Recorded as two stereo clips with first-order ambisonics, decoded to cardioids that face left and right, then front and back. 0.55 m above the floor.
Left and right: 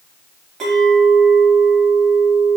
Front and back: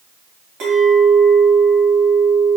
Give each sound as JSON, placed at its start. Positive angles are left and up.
{"t": 0.6, "sound": "a clink", "azimuth_deg": -150, "distance_m": 2.0}